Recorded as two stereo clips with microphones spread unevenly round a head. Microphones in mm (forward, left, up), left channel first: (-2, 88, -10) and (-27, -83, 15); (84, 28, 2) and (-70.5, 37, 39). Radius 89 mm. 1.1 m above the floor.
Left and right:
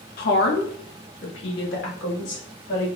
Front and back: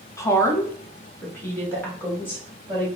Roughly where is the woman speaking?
Ahead left.